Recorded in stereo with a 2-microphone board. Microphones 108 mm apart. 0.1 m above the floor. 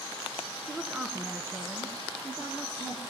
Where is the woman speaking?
Centre (ahead or behind), 1.6 m; by 3.0 s 30° right (ahead or behind), 3 m.